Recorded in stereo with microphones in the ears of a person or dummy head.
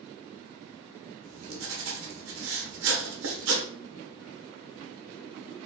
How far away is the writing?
About 1.5 m.